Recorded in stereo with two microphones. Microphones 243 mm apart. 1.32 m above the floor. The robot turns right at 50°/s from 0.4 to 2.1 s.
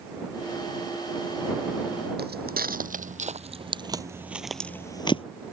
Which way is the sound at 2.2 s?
40° right (ahead or behind).